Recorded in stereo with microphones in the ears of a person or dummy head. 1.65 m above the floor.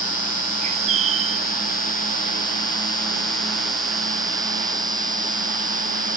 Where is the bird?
35° right (ahead or behind).